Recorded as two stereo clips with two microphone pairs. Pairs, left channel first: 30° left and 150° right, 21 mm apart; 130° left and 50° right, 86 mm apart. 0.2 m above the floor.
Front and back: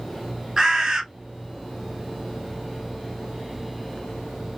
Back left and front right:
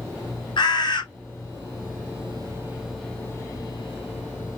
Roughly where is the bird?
Behind left.